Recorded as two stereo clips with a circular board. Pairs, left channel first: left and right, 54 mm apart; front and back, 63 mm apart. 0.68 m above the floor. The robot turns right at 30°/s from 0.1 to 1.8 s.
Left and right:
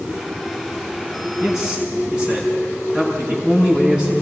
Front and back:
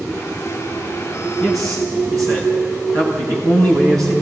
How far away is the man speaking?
About 7.5 m.